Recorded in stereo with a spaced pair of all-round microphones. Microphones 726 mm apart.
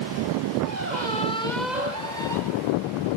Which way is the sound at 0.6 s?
70° right (ahead or behind).